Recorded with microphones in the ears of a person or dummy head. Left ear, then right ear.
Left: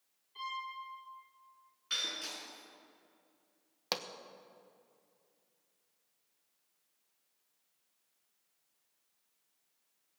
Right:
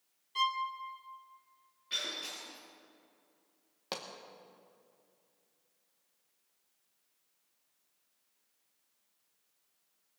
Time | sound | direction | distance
0.3 | a violin | 60° right (ahead or behind) | 1.8 m
1.9 | breaking glass | 50° left (ahead or behind) | 5 m
3.9 | a pop | 20° left (ahead or behind) | 1.0 m